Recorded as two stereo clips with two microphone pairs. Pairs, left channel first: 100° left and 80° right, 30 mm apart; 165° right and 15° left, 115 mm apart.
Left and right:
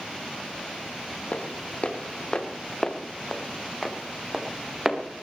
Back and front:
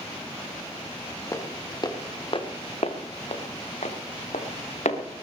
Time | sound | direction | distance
1.3 | footsteps | 135° left | 3 m